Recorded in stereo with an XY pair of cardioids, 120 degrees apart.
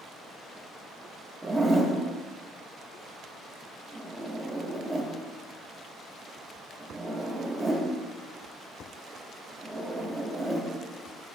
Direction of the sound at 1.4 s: 20° right.